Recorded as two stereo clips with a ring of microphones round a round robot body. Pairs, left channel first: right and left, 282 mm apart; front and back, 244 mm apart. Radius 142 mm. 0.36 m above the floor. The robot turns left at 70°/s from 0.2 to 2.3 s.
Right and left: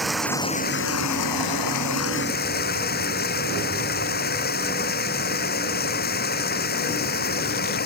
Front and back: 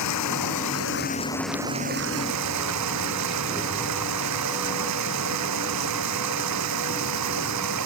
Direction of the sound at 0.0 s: Straight ahead.